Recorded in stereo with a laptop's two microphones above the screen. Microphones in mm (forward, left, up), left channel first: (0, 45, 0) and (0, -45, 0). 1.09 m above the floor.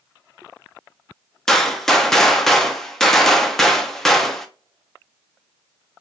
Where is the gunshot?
5° left (ahead or behind), 0.6 m.